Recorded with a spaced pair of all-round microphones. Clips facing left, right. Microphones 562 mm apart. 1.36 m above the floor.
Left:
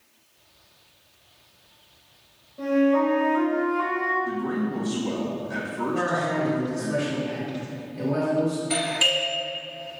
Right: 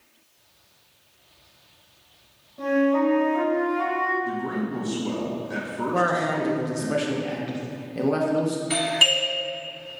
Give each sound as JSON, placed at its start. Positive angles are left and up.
{"t": 2.6, "sound": "a flute", "side_deg": -15, "distance_m": 1.1}
{"t": 4.2, "sound": "a man speaking", "side_deg": 0, "distance_m": 0.7}
{"t": 5.9, "sound": "a man speaking", "side_deg": -80, "distance_m": 0.8}
{"t": 8.7, "sound": "a doorbell", "side_deg": -35, "distance_m": 1.3}